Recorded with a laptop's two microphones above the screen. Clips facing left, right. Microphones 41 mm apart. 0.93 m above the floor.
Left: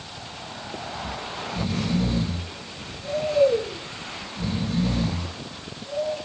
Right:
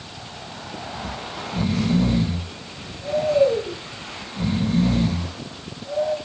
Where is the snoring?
50° right (ahead or behind), 5.5 m.